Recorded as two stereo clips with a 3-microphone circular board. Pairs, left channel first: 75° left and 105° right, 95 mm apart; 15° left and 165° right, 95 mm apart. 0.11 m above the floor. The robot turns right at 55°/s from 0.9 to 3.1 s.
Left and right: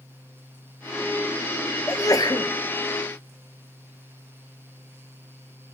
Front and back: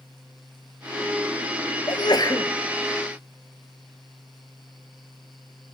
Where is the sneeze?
25° left, 1.8 m; by 2.5 s 55° left, 1.8 m.